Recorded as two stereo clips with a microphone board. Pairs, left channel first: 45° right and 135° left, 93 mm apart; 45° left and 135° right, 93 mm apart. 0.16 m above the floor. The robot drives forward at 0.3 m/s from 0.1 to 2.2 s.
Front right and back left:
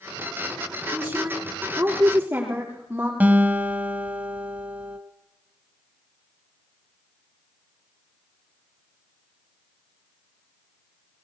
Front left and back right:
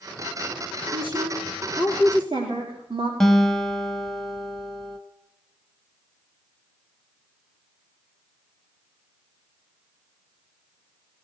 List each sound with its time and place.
0.9 s a woman speaking: 150° right, 8.5 m
3.2 s a guitar: 120° left, 0.9 m